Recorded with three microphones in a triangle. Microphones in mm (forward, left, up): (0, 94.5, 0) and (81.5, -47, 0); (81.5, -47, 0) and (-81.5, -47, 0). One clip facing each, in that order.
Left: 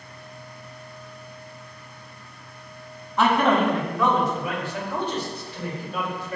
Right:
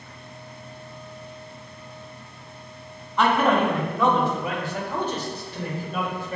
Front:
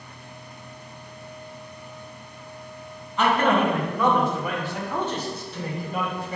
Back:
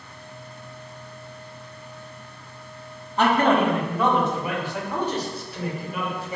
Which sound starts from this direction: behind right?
A man speaking, at 3.2 s.